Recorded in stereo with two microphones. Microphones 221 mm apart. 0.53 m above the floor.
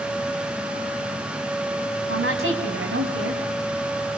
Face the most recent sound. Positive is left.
turn(degrees=-70)  # may be behind; listen again after turning